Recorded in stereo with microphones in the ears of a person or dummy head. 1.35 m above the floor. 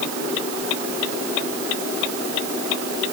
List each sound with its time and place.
Only background noise.